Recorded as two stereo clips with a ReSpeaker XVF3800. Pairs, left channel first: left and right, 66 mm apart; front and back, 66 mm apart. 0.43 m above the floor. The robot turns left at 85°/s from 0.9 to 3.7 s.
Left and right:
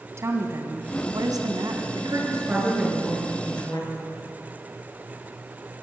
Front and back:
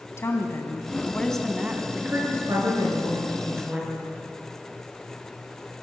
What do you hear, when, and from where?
0.2 s a woman speaking: 50° right, 3 m; by 1.9 s 130° right, 3 m
1.9 s a woman speaking: 100° right, 8 m; by 4.2 s 110° left, 8 m